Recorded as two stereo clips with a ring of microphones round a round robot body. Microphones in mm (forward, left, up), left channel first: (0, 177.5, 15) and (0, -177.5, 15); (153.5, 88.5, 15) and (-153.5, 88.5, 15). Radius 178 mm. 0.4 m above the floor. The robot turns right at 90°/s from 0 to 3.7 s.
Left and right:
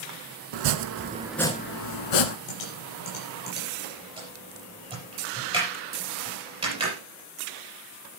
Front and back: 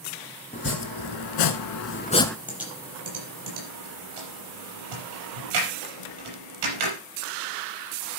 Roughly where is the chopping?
Right.